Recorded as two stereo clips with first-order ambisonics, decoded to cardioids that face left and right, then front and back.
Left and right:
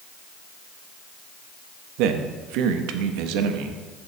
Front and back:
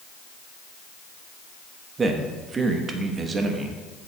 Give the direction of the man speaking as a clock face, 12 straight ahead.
4 o'clock.